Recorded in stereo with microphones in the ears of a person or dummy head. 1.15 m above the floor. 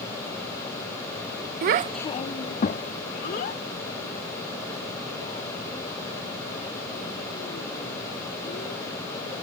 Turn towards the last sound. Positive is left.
turn(degrees=50)  # may be behind; listen again after turning